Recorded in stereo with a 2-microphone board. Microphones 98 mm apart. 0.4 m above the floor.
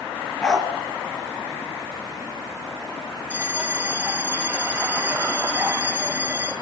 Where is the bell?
20° right (ahead or behind), 3 m.